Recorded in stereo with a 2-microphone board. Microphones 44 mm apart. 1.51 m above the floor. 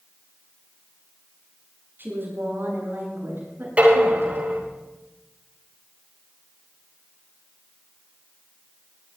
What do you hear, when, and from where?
2.0 s a woman speaking: 50° right (ahead or behind), 9 m; by 4.4 s 55° right (ahead or behind), 10.5 m
3.8 s dishes clattering: 35° right (ahead or behind), 9.5 m